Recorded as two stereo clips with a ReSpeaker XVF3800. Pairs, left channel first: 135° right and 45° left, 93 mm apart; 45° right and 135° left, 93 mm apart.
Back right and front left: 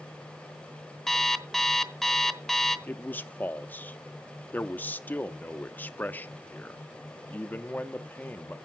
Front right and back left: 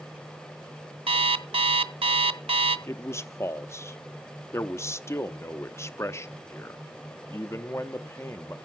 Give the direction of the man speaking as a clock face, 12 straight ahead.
3 o'clock.